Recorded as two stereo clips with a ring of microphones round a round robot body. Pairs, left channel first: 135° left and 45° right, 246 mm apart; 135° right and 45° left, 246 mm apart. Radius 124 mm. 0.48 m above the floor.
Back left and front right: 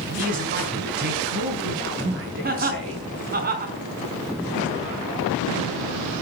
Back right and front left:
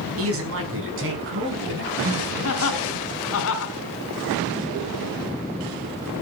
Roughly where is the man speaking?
Ahead.